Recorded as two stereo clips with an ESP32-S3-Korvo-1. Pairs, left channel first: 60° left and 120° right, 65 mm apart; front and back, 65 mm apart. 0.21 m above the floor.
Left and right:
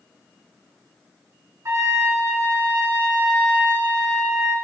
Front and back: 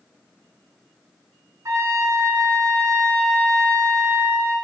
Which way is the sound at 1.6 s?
150° right.